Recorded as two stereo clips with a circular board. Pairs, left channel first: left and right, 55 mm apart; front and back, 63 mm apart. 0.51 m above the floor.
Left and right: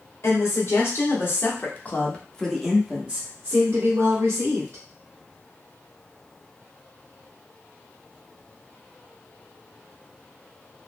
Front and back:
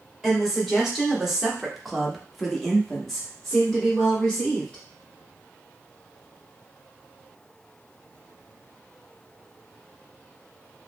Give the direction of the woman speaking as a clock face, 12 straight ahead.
9 o'clock.